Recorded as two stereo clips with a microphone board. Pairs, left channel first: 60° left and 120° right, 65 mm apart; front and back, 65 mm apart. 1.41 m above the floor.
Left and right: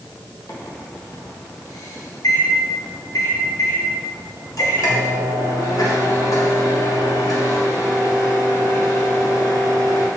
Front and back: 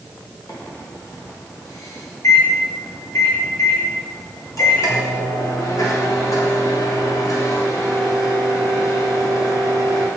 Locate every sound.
0.5 s a microwave: 35° left, 1.0 m